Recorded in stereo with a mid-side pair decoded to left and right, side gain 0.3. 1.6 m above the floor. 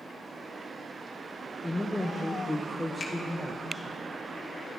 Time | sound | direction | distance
1.6 | a woman speaking | 15° left | 0.9 m
3.0 | a finger snap | 40° left | 1.9 m